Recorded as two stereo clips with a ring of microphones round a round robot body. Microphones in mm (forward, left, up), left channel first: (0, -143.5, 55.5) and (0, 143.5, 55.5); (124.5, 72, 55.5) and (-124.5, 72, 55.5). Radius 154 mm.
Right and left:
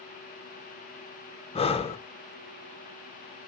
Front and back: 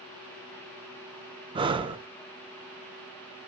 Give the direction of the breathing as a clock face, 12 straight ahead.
4 o'clock.